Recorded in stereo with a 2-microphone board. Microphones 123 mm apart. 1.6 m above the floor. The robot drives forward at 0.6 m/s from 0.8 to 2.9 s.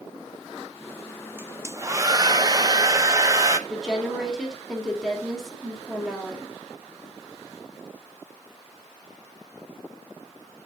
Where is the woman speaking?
Centre (ahead or behind), 2 m.